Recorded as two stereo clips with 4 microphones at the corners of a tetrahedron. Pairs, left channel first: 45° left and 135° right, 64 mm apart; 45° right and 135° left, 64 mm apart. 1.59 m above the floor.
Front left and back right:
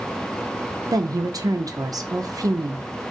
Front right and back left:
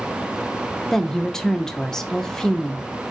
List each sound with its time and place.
0.9 s a woman speaking: 125° right, 0.6 m